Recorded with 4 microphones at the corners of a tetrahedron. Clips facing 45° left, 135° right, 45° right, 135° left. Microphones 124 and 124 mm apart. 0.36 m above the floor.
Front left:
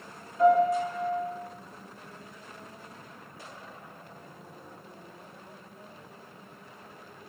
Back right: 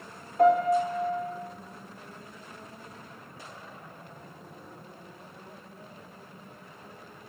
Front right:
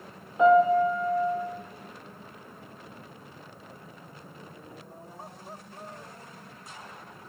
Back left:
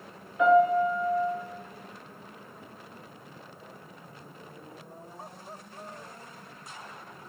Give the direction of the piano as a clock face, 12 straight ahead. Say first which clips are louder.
Even, front right 2 dB; 4 o'clock.